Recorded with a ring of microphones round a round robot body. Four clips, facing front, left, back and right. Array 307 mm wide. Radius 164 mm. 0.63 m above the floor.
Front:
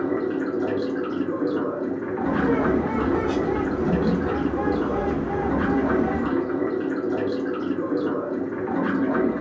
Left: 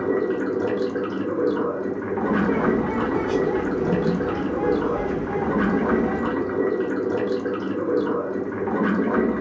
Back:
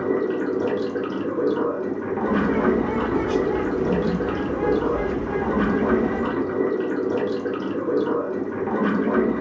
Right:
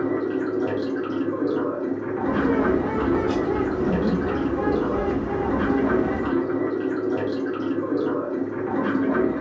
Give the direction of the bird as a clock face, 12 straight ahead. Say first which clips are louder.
Even, back 1 dB; 1 o'clock.